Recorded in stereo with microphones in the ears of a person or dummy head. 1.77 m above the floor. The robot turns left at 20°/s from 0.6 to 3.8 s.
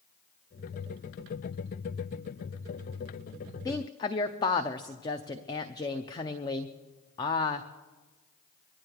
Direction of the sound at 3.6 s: 10° left (ahead or behind).